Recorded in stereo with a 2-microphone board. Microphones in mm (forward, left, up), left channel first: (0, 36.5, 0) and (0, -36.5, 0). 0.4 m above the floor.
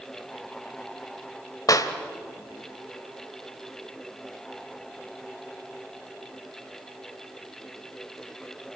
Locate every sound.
1.7 s a clap: 55° left (ahead or behind), 1.8 m